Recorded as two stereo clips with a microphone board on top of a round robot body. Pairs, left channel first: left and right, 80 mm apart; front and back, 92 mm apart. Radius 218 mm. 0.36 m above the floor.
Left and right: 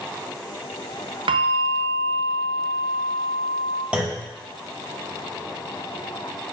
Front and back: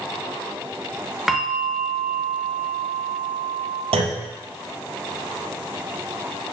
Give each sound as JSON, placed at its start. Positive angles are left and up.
{"t": 1.3, "sound": "a bell", "azimuth_deg": -95, "distance_m": 0.8}
{"t": 3.9, "sound": "a clunk", "azimuth_deg": -165, "distance_m": 0.6}